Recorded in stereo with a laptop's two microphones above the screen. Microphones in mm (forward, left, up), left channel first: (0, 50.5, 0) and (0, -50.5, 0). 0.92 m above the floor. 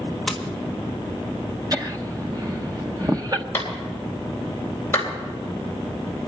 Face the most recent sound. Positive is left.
turn(degrees=25)  # may be behind; listen again after turning